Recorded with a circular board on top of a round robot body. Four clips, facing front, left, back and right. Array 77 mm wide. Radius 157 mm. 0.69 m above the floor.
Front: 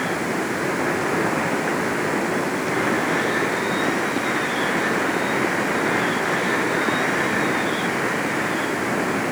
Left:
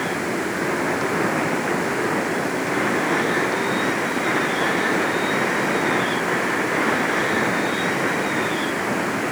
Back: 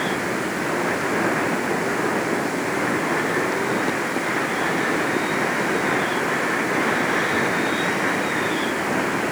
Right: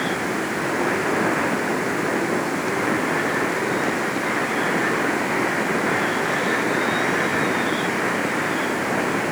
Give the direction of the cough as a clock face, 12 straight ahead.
I don't hear a cough.